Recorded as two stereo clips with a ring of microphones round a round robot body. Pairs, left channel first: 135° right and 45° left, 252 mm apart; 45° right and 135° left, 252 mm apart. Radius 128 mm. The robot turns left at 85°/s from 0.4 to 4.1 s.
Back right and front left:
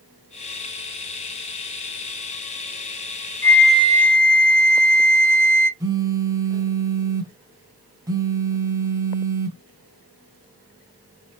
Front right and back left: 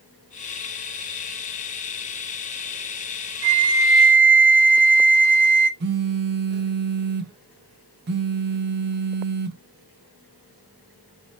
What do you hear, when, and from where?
3.4 s a flute: 145° left, 1.1 m; by 5.7 s 85° left, 1.1 m
5.8 s a phone buzzing: 115° left, 0.6 m